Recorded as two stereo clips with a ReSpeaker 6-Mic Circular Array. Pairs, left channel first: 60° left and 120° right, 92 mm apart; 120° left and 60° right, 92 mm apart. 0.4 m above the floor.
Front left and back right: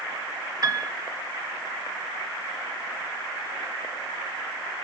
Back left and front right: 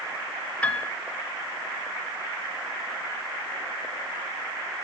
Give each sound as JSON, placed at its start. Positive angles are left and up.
{"t": 0.6, "sound": "a piano", "azimuth_deg": -165, "distance_m": 0.7}